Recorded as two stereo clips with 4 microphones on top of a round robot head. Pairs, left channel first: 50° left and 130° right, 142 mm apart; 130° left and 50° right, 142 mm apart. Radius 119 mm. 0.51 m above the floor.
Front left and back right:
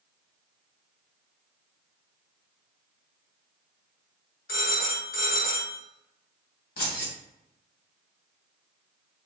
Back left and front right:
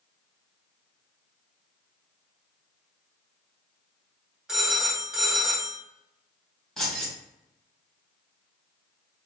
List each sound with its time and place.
4.5 s a phone ringing: 35° left, 1.8 m
6.8 s keys jangling: 45° left, 2.5 m